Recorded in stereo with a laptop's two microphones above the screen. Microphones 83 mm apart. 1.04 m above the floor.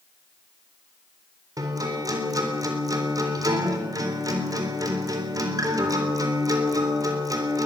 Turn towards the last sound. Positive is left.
turn(degrees=-45)  # may be behind; listen again after turning